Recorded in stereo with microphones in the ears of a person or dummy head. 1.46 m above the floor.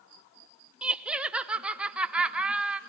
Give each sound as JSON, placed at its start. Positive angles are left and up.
{"t": 0.8, "sound": "laughter", "side_deg": -5, "distance_m": 0.7}